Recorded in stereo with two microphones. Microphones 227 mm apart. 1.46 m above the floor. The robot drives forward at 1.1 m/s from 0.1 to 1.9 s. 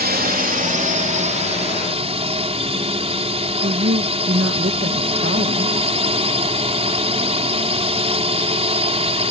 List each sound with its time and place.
0.0 s a drone: 40° right (ahead or behind); by 9.3 s 25° right (ahead or behind)
3.6 s a woman speaking: 55° right (ahead or behind)